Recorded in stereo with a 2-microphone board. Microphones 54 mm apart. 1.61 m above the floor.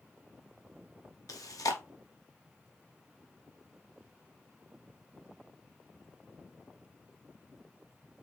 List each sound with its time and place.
1.3 s chewing: 80° left, 0.9 m